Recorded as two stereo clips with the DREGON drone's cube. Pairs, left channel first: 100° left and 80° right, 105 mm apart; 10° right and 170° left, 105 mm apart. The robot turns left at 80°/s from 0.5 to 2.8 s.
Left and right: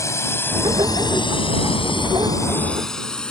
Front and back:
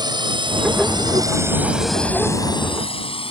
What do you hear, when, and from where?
0.0 s a drone: 150° left; by 3.3 s 20° left